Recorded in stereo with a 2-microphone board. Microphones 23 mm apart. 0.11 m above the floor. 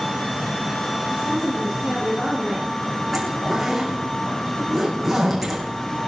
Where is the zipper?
5° right (ahead or behind), 6.5 m.